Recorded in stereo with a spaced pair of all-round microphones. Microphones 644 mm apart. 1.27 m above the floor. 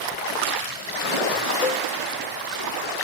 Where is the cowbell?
75° left (ahead or behind).